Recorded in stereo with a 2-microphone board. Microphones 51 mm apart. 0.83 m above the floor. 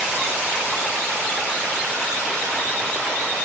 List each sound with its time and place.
Only background noise.